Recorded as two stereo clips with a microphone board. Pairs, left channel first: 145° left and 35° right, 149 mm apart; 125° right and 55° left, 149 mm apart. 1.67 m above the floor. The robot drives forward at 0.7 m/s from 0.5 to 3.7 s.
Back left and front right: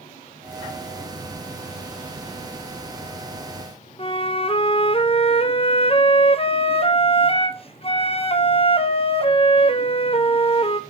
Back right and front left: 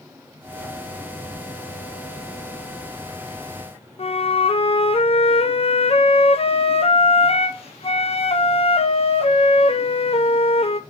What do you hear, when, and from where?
4.0 s a flute: 170° right, 0.6 m